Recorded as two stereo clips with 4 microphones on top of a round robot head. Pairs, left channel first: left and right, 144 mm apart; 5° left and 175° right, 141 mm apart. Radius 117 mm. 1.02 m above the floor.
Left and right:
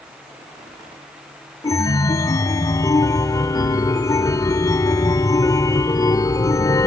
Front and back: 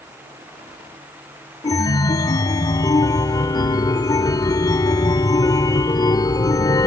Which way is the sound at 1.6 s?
45° left.